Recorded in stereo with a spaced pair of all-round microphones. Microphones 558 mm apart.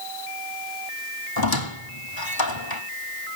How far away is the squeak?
About 1.6 m.